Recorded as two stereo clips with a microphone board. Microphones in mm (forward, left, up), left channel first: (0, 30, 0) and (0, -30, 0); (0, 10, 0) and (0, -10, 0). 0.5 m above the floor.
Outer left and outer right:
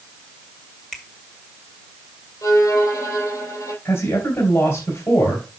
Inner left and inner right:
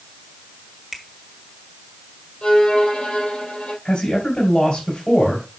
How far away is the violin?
About 4 m.